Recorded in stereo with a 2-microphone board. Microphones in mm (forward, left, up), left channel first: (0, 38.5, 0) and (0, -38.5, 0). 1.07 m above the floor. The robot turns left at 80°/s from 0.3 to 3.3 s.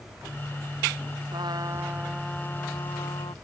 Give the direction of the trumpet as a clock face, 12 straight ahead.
3 o'clock.